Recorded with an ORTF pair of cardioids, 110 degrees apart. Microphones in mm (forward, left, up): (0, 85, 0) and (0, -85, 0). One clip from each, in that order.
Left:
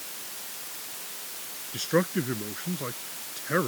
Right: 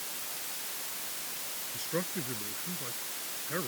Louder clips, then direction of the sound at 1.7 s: Left 10 dB; 60° left.